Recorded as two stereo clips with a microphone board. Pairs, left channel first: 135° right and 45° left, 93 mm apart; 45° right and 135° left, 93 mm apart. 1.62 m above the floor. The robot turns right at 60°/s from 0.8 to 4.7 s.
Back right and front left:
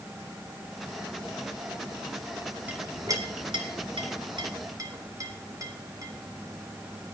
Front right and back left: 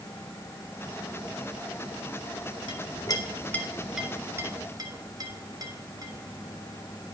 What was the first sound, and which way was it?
A clink, 25° right.